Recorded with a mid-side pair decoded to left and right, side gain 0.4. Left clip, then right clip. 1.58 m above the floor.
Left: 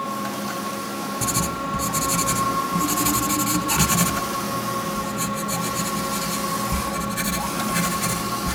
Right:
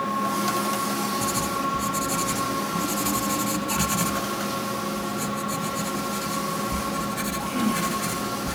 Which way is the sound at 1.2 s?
50° left.